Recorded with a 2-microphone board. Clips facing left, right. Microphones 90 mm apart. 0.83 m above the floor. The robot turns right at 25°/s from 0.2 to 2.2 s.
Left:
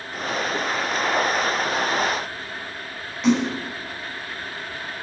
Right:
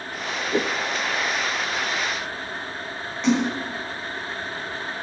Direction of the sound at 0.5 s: 60° right (ahead or behind).